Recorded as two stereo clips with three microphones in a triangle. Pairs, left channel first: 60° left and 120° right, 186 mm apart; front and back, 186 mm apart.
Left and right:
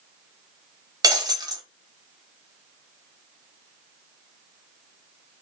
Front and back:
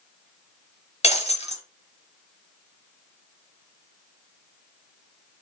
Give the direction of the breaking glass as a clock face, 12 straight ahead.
2 o'clock.